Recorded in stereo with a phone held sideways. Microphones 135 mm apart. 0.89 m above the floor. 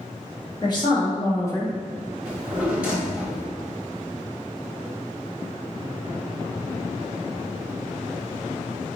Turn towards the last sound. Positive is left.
turn(degrees=-10)  # may be behind; listen again after turning